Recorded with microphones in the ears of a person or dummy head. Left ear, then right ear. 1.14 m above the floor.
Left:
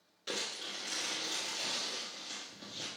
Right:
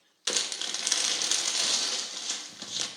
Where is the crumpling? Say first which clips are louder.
Right 8 dB; 45° right (ahead or behind), 0.8 m.